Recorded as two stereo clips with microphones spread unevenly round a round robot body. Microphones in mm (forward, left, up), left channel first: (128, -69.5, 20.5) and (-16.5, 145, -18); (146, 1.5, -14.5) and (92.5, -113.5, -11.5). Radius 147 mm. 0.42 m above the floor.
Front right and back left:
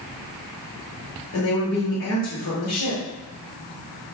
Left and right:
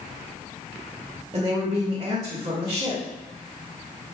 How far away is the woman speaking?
About 1.1 m.